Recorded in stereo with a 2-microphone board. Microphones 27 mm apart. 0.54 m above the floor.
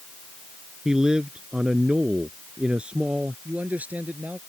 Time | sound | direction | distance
0.8 | a man speaking | 25° right (ahead or behind) | ?
3.5 | a man speaking | 75° right (ahead or behind) | ?